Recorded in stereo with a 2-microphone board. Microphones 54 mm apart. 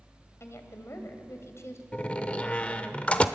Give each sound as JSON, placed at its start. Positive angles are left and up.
{"t": 0.4, "sound": "a woman speaking", "side_deg": 55, "distance_m": 2.5}
{"t": 1.9, "sound": "a door slam", "side_deg": 25, "distance_m": 0.9}